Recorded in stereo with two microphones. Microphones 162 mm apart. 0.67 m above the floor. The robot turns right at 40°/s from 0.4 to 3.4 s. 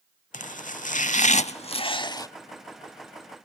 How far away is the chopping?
About 0.7 m.